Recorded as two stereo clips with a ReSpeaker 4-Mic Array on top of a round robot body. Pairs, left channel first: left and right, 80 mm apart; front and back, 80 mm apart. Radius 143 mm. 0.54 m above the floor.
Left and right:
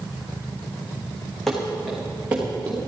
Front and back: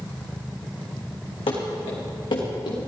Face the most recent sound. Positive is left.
turn(degrees=-25)